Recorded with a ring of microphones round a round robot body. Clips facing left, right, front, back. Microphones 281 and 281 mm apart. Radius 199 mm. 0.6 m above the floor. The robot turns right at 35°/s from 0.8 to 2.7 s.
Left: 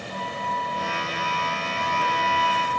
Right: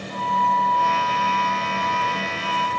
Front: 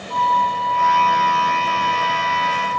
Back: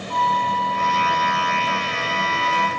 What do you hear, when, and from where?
0.1 s a flute: 175° left, 0.8 m; by 2.7 s 120° right, 0.8 m